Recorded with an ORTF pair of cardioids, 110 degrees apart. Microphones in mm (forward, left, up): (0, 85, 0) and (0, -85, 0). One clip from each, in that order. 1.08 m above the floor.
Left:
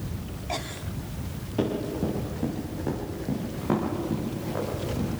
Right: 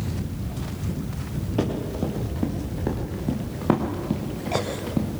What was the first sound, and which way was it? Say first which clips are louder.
Running footsteps: even; 20° right.